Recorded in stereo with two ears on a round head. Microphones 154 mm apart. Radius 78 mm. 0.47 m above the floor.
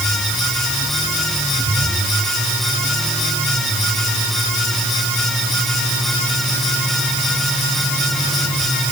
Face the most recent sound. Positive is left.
No sound to turn to.